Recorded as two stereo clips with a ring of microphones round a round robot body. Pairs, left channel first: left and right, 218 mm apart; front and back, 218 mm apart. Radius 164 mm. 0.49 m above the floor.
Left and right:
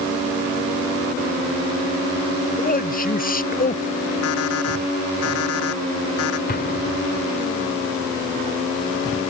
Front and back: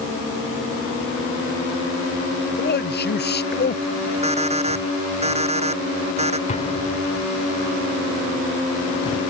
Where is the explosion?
55° left.